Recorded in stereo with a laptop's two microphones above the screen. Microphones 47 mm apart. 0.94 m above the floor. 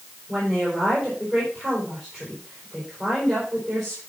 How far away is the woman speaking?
About 4.5 m.